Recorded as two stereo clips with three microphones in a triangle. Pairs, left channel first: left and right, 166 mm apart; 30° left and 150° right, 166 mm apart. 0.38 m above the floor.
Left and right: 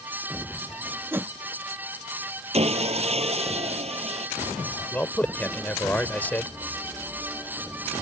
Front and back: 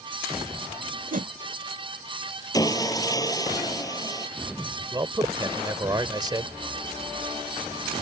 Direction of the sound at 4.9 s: 165° left.